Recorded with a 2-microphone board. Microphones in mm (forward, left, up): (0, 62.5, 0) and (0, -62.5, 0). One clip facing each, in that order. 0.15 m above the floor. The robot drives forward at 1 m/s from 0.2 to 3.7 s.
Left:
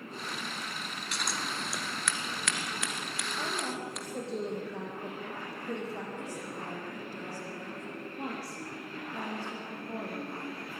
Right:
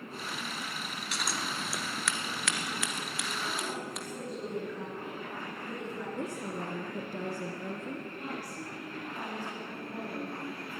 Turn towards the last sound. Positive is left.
turn(degrees=70)  # may be behind; listen again after turning